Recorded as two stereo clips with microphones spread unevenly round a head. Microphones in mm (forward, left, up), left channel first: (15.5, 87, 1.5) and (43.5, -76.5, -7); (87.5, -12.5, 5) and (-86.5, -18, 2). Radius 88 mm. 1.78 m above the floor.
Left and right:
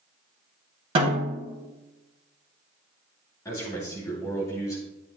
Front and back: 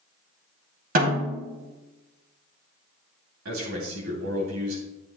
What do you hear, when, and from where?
0.9 s a snare drum: 140° right, 3 m
3.5 s a man speaking: 175° left, 3 m